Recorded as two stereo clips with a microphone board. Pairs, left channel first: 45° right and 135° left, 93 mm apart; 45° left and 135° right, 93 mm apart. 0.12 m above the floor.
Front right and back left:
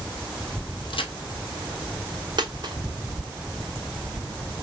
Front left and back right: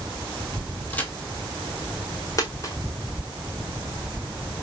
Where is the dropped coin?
95° left, 0.9 m.